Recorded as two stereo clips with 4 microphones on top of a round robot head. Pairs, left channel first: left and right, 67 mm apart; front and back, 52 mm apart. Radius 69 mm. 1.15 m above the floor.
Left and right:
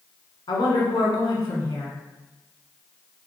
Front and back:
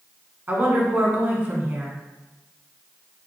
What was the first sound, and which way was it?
A woman speaking, 130° left.